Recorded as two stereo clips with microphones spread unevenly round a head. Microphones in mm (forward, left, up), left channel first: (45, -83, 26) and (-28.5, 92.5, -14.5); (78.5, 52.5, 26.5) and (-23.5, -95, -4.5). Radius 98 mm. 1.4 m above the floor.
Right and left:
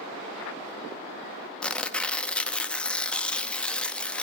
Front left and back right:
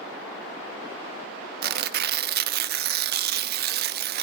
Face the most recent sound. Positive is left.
turn(degrees=-135)